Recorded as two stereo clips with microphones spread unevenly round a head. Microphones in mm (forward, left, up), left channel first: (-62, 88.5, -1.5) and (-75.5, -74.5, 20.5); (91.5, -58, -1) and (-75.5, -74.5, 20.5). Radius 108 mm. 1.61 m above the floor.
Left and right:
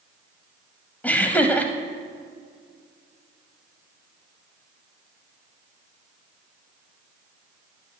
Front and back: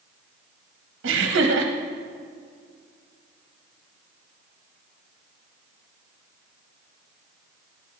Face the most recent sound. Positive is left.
turn(degrees=170)